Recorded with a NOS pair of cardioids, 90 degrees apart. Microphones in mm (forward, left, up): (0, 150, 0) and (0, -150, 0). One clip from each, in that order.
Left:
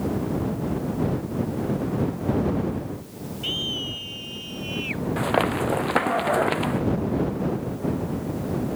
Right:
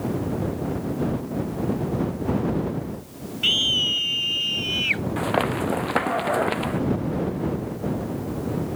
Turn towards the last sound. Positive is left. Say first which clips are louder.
# left 1 dB
turn(degrees=5)